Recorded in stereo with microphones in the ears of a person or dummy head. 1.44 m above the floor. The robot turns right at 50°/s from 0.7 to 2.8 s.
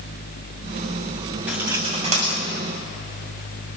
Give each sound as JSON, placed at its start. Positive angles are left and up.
{"t": 1.5, "sound": "cutlery clinking", "side_deg": -5, "distance_m": 6.5}